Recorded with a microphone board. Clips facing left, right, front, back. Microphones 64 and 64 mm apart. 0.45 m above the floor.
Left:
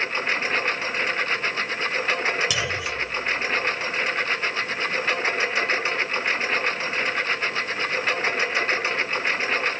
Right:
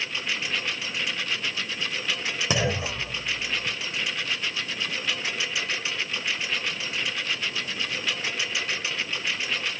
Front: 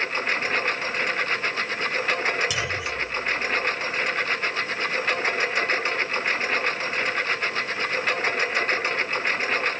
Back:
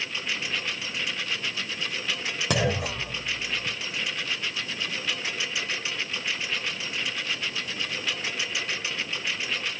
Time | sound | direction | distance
0.0 | a lawn mower | 40° left | ?
2.5 | a clunk | 150° right | ?